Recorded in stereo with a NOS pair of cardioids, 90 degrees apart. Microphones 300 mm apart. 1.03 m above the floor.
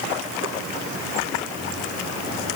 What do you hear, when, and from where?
Only background noise.